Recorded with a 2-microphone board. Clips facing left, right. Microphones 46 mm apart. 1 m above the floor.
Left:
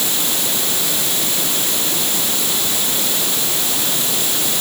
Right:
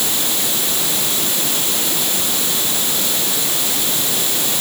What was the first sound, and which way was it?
Only background noise.